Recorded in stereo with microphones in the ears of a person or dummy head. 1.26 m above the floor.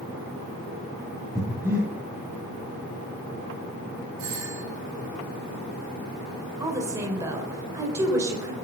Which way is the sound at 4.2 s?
80° right.